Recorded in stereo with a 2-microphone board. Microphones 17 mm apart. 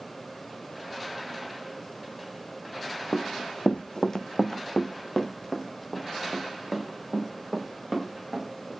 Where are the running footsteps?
65° left (ahead or behind), 1.0 m; by 8.7 s 5° right (ahead or behind), 6.5 m.